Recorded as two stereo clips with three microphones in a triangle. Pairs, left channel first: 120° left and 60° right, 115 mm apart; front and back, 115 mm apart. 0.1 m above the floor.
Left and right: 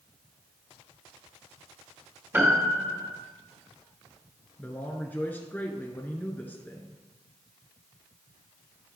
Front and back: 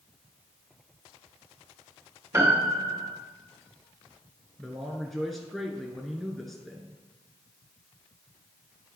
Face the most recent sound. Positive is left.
turn(degrees=85)